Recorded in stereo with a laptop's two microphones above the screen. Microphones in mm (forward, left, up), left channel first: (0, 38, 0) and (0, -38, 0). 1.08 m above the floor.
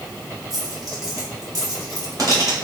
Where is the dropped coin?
50° right (ahead or behind), 1.4 m.